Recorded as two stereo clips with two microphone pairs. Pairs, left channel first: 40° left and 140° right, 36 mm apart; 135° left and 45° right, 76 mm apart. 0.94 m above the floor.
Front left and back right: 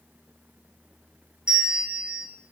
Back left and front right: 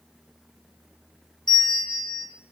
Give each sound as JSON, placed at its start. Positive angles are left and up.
{"t": 1.5, "sound": "a bell", "azimuth_deg": 155, "distance_m": 3.5}